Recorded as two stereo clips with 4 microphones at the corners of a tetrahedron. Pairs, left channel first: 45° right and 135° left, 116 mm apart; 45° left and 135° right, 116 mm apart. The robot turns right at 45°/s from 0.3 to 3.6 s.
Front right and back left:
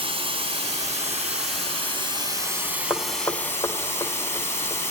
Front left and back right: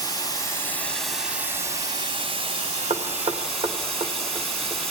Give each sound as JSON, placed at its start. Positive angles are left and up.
{"t": 0.0, "sound": "running water", "azimuth_deg": 100, "distance_m": 2.0}
{"t": 2.9, "sound": "knocking", "azimuth_deg": -130, "distance_m": 1.3}